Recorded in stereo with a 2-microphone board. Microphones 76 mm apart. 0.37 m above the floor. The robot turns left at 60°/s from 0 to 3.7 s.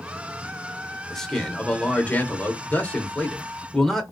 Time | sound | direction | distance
1.1 | a man speaking | 5° left (ahead or behind) | 0.8 m